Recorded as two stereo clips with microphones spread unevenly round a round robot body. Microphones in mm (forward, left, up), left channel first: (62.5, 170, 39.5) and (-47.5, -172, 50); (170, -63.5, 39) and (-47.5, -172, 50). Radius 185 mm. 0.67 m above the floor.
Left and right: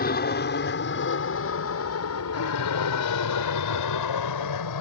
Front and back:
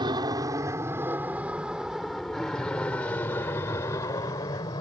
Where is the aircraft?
130° left; by 4.8 s 105° left.